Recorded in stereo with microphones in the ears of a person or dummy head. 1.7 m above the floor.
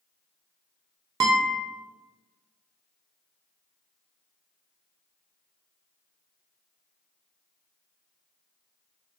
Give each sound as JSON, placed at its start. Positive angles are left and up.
{"t": 1.2, "sound": "a guitar", "side_deg": -20, "distance_m": 0.5}